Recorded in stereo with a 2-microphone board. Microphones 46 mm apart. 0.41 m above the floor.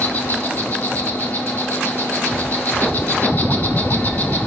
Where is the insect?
45° left (ahead or behind), 1.0 m.